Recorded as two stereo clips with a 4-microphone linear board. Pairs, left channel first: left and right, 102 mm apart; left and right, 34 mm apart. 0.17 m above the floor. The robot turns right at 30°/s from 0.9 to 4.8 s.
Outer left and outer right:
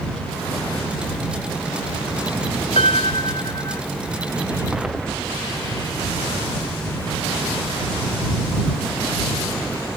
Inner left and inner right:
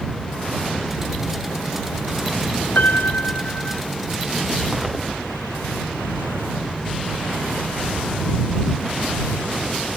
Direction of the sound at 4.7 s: 5° right (ahead or behind).